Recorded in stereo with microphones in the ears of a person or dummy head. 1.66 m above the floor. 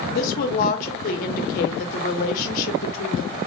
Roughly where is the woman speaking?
Left.